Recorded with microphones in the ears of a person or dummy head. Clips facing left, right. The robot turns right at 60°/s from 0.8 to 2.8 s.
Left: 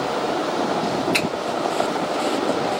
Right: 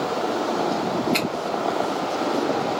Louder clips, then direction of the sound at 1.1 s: Even; 20° left (ahead or behind).